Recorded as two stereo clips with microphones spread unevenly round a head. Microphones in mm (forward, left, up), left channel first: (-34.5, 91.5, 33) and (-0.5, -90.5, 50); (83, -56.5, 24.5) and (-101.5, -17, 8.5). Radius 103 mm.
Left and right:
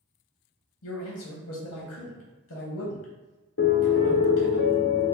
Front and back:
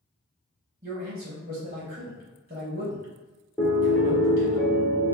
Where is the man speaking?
105° left, 0.9 m.